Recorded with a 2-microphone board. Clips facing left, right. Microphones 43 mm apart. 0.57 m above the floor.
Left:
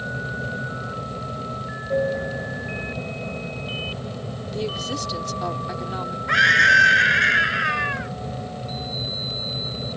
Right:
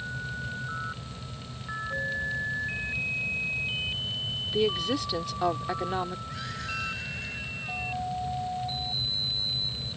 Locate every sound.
0.0 s an aircraft: 60° left (ahead or behind)
4.5 s a woman speaking: 15° right (ahead or behind)
6.3 s a scream: 75° left (ahead or behind)